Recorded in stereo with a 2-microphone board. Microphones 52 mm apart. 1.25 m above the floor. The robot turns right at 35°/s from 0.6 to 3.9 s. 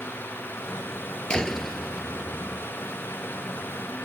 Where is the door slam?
165° left; by 2.7 s 145° right.